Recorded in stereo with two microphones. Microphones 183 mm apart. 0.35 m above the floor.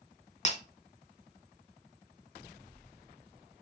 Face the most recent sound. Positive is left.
turn(degrees=40)  # may be behind; listen again after turning